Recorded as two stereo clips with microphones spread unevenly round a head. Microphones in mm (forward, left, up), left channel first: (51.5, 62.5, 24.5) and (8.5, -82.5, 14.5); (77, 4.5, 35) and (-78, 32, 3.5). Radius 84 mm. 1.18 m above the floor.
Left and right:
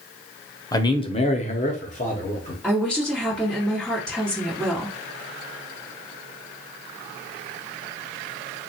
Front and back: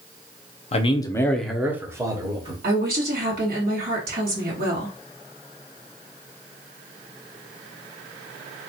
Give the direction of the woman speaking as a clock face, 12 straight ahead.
7 o'clock.